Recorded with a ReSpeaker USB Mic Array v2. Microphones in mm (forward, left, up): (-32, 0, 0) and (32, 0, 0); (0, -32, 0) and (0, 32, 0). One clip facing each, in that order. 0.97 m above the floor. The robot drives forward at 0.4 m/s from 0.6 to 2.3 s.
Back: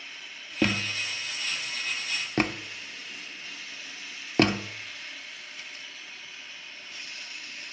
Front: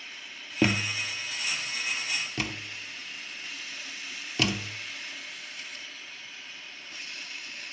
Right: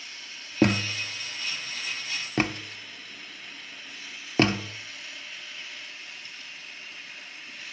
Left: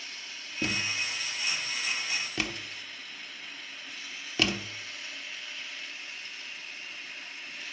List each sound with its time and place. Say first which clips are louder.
0.6 s a thud: front 1 dB, right 8 dB; 80° right, 0.6 m; by 4.8 s 140° right, 0.9 m